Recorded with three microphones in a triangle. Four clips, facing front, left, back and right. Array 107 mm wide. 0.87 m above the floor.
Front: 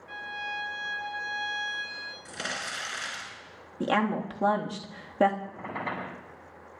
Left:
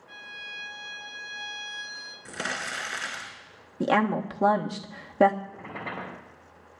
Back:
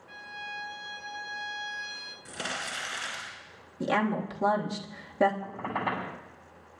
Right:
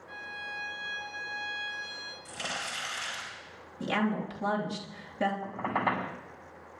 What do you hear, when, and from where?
0.1 s a violin: 10° right, 2.5 m
2.2 s crumpling: 90° left, 5 m
3.8 s a woman speaking: 75° left, 1.3 m
5.4 s a squeak: 105° right, 6 m